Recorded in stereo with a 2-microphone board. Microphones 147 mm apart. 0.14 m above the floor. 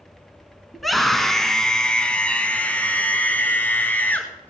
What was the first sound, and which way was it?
A scream, centre (ahead or behind).